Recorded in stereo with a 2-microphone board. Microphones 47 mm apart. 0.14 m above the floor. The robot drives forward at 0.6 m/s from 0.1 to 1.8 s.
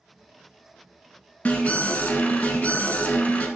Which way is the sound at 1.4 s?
30° left (ahead or behind).